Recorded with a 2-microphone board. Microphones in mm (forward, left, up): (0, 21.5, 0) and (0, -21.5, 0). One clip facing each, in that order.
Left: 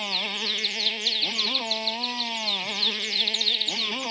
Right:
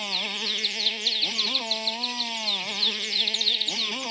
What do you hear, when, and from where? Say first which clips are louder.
0.0 s a motorcycle: left 1 dB; 5° left (ahead or behind)